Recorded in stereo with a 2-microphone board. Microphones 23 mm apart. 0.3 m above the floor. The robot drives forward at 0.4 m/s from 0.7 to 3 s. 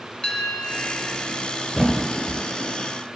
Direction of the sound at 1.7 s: 5° right (ahead or behind).